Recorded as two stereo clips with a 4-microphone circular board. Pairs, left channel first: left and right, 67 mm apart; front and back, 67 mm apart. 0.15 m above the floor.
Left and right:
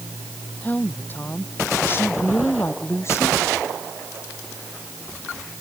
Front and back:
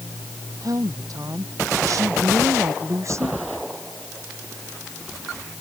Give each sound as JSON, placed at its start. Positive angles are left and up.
{"t": 0.6, "sound": "a woman speaking", "azimuth_deg": 155}